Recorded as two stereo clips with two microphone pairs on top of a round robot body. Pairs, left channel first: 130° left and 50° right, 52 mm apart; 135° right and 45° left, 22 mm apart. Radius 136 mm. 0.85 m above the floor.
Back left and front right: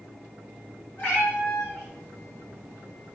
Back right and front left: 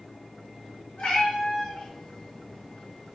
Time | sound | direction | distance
1.0 | a cat meowing | 165° right | 4.5 m